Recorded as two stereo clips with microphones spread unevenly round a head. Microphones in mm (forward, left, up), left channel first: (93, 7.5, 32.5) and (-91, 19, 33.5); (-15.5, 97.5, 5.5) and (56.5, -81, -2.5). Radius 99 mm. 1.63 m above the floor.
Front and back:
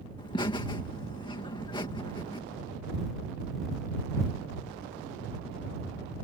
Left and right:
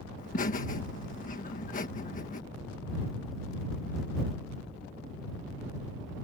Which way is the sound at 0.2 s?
65° left.